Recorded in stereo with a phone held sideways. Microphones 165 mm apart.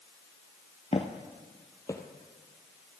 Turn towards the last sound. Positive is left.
turn(degrees=15)  # may be behind; listen again after turning